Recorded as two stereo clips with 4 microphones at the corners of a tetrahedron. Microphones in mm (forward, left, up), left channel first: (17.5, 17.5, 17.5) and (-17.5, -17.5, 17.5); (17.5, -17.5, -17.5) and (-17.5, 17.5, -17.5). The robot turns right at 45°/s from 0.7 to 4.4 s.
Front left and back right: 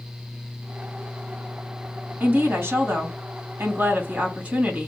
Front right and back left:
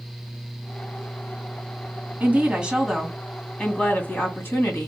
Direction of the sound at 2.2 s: 175° right.